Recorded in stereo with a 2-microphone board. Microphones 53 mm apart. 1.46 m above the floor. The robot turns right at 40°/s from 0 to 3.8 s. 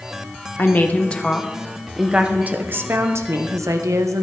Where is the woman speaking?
135° left, 0.8 m; by 4.2 s 95° right, 0.8 m.